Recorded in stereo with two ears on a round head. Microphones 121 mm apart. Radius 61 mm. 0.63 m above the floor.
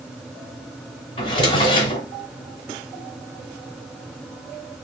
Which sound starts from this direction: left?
A drawer, at 1.2 s.